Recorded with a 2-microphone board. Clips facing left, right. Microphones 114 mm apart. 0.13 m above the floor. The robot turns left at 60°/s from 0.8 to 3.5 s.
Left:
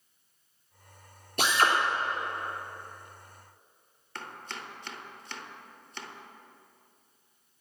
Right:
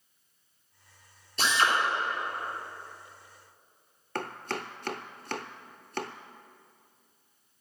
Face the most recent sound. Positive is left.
turn(degrees=-60)  # may be behind; listen again after turning